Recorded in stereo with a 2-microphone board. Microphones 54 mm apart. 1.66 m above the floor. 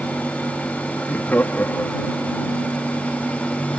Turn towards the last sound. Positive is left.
turn(degrees=45)  # may be behind; listen again after turning